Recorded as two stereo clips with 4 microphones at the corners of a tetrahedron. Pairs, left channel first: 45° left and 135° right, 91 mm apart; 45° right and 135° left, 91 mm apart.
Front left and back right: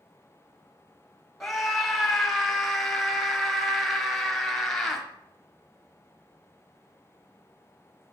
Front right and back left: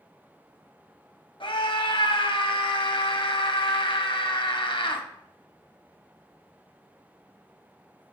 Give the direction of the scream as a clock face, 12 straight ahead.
1 o'clock.